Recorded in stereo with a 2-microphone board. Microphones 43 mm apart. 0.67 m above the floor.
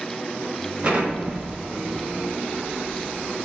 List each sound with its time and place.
0.8 s an explosion: 30° right (ahead or behind), 0.6 m